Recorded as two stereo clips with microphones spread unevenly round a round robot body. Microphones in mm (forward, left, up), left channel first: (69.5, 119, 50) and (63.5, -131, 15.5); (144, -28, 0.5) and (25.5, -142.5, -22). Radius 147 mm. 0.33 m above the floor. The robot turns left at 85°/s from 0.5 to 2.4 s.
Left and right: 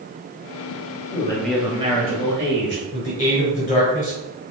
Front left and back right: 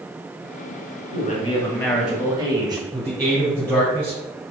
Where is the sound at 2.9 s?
150° left, 1.7 m.